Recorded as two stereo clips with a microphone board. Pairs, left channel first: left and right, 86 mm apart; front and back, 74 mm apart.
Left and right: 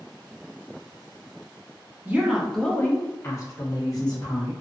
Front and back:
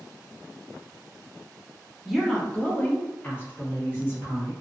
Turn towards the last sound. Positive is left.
turn(degrees=55)